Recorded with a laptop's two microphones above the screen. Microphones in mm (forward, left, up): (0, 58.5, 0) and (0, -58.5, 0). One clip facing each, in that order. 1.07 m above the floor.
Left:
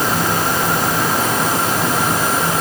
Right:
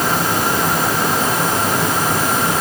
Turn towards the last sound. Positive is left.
No sound to turn to.